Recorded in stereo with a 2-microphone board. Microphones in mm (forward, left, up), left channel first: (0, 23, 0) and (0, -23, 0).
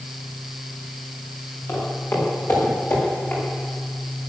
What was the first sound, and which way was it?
Footsteps, 70° left (ahead or behind).